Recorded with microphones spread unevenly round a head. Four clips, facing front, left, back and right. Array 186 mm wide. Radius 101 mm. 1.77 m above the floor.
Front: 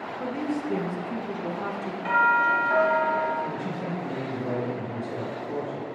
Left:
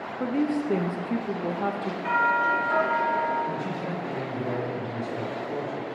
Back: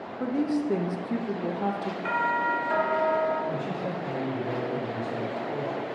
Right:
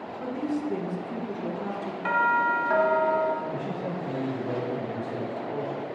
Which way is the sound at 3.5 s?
25° left.